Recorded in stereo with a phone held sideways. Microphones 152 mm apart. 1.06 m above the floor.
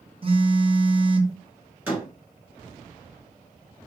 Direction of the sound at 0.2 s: 35° right (ahead or behind).